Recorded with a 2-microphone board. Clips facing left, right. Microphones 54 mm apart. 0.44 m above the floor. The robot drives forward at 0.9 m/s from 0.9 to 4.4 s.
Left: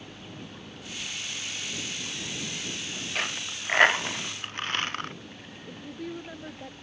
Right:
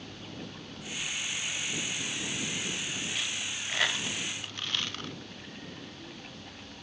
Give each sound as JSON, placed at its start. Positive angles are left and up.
{"t": 3.1, "sound": "a dropped coin", "side_deg": 55}
{"t": 5.7, "sound": "a woman speaking", "side_deg": 75}